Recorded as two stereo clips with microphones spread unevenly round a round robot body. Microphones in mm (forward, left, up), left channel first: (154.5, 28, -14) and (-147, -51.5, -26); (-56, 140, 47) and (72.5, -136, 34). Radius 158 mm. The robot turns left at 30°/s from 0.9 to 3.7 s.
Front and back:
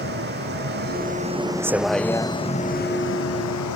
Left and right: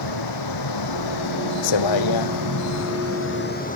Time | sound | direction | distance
0.0 | a vehicle | 135° left | ?